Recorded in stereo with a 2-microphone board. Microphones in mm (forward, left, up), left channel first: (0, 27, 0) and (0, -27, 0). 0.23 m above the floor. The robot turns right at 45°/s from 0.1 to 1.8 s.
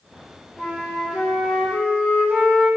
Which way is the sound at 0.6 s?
5° right (ahead or behind).